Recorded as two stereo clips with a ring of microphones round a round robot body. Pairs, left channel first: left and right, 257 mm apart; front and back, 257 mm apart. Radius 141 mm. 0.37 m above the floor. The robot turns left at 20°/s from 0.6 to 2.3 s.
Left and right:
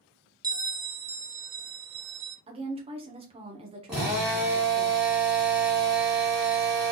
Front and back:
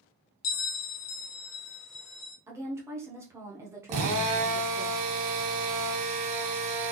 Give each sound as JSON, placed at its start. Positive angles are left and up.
{"t": 0.4, "sound": "a bell", "azimuth_deg": -15, "distance_m": 0.6}
{"t": 2.5, "sound": "a woman speaking", "azimuth_deg": -115, "distance_m": 0.9}
{"t": 3.9, "sound": "a drill", "azimuth_deg": -175, "distance_m": 1.9}